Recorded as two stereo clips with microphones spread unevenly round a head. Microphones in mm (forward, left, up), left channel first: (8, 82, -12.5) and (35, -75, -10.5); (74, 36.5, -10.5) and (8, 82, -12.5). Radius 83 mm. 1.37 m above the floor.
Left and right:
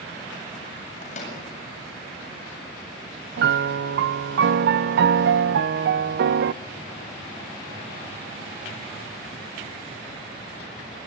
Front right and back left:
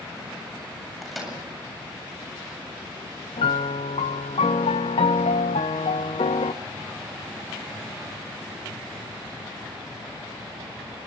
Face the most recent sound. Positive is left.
turn(degrees=-60)